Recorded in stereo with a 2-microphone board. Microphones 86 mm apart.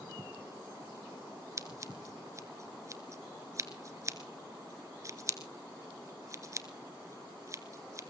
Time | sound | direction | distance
1.6 | scissors | 35° right (ahead or behind) | 1.7 m